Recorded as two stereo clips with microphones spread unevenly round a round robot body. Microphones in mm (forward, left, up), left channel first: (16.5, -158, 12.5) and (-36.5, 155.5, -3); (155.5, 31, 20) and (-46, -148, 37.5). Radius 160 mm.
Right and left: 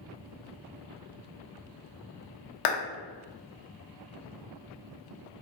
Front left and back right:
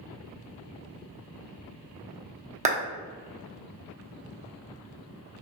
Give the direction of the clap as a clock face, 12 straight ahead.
2 o'clock.